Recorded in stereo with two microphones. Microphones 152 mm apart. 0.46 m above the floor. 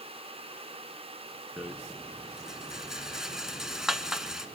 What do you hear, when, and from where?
1.6 s a rattle: 5° right (ahead or behind), 0.9 m